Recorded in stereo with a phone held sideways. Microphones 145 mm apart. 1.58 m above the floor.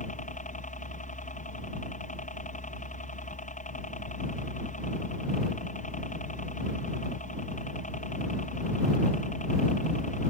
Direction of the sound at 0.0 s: 60° left (ahead or behind).